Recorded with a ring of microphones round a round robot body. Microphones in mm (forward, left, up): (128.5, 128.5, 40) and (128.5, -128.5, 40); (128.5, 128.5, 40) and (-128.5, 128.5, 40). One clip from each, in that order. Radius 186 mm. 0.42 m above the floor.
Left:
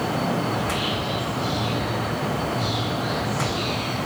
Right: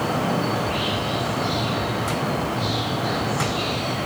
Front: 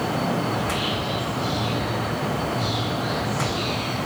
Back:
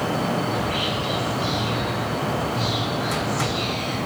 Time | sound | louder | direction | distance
0.5 | whispering | right 1 dB, back 1 dB | 155° left | 3.5 m